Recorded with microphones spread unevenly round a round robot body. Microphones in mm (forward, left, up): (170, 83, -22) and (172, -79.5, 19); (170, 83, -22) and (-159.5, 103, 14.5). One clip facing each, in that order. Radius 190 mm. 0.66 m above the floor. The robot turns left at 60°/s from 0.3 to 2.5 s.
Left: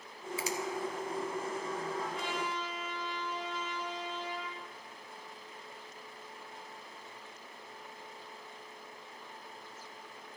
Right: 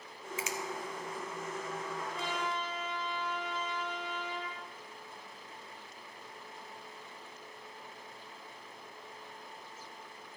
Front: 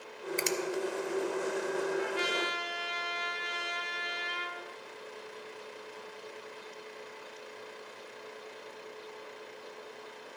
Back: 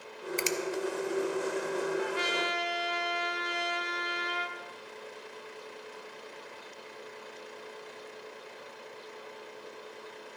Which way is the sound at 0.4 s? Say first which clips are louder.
Left 2 dB, even; 100° left.